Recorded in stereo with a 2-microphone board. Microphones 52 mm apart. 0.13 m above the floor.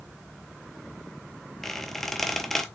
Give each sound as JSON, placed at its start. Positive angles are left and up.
{"t": 1.6, "sound": "a squeak", "side_deg": 5, "distance_m": 0.5}